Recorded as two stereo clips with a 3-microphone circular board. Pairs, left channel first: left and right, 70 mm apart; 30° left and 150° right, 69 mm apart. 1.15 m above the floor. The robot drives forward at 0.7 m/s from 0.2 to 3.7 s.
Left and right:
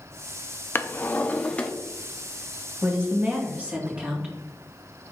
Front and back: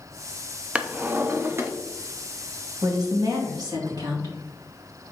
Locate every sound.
0.8 s a drawer: 140° left, 0.6 m; by 1.7 s 165° left, 1.1 m
2.8 s a woman speaking: 150° right, 1.8 m; by 4.3 s 160° right, 2.5 m